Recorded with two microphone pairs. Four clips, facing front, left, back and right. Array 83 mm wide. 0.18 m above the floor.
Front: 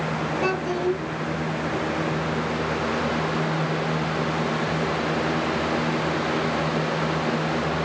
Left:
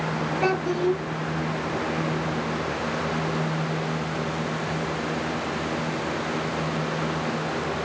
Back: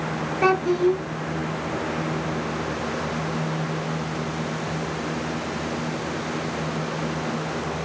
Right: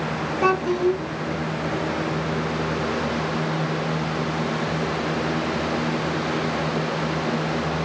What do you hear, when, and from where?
0.4 s a child speaking: straight behind, 1.9 m